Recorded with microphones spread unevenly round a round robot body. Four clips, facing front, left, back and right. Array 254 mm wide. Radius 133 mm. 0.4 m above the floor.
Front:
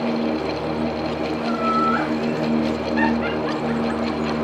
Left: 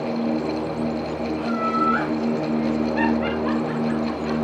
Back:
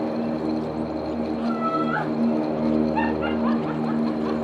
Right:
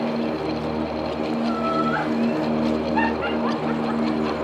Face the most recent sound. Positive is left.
turn(degrees=-100)